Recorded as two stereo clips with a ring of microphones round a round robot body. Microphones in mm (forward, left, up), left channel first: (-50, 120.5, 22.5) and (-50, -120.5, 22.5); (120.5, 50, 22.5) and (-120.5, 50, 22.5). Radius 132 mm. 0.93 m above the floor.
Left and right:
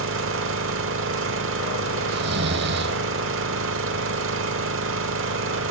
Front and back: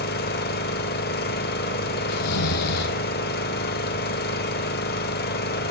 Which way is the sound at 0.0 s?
50° right.